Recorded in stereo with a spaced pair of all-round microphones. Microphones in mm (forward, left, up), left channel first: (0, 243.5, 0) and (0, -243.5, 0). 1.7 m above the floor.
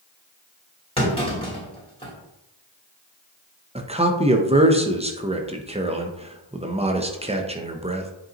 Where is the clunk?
10° left (ahead or behind), 2.5 m.